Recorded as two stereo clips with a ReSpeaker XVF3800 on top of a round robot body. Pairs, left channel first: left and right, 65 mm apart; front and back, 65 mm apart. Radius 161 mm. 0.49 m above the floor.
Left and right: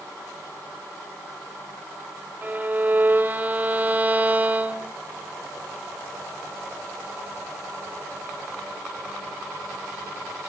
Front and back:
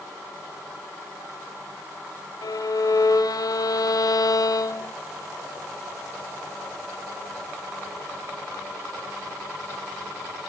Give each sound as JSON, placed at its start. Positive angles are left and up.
{"t": 2.4, "sound": "a violin", "azimuth_deg": -25, "distance_m": 1.1}